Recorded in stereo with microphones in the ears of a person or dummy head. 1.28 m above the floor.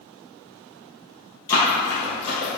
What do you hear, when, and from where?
1.5 s running footsteps: 20° left (ahead or behind), 2.0 m; by 2.6 s 40° left (ahead or behind), 2 m